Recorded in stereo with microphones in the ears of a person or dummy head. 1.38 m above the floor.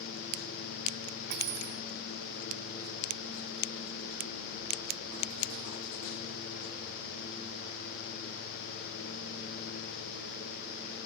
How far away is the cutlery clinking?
About 0.8 m.